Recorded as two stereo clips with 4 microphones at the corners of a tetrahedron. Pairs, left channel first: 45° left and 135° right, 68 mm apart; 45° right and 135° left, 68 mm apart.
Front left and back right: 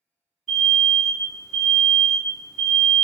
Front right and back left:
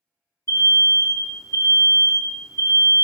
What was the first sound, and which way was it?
An alarm, 45° right.